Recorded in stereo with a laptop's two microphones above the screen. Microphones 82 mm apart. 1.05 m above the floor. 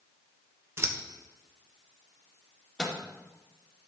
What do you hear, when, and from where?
0.8 s scissors: 35° right (ahead or behind), 0.7 m
2.8 s a microwave: 10° left (ahead or behind), 1.9 m